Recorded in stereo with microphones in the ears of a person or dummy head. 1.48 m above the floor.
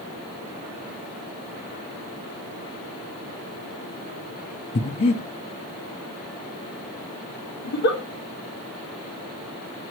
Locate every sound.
4.8 s breathing: 35° left (ahead or behind), 1.0 m
7.6 s a giggle: 80° left, 4.5 m